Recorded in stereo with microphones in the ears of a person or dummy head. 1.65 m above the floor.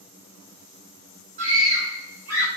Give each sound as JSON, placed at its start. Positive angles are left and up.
{"t": 1.4, "sound": "a scream", "side_deg": -65, "distance_m": 1.3}